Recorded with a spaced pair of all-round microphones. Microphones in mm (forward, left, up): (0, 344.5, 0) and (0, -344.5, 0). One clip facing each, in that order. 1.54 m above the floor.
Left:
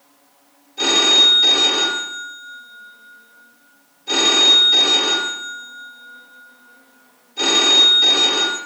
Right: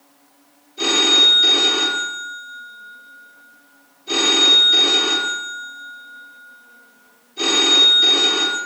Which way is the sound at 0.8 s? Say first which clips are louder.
Even; 30° left (ahead or behind).